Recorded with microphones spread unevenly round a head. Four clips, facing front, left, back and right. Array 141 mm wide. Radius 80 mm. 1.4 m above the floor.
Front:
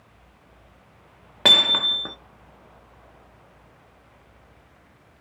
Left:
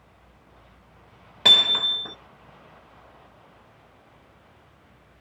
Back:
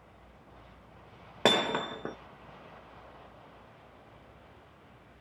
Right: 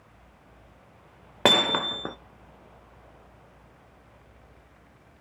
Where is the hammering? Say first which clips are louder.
Right 5 dB, front 2 dB; 100° right, 0.6 m.